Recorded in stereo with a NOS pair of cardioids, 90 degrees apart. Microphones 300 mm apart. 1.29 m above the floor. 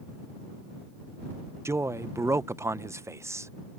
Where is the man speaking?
10° right.